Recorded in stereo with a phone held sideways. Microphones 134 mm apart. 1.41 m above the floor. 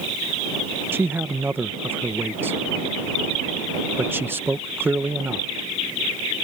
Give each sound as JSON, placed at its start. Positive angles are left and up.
{"t": 0.9, "sound": "a man speaking", "side_deg": -15}